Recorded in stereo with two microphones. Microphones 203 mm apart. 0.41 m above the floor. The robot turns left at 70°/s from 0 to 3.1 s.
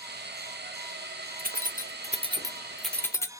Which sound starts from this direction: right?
Keys jangling, at 1.4 s.